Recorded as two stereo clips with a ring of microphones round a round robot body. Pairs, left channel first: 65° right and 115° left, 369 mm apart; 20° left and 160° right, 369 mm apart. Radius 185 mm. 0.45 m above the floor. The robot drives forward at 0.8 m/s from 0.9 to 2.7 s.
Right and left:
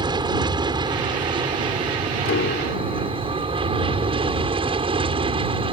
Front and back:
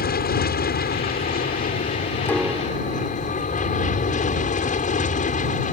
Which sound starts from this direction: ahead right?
A piano, at 2.2 s.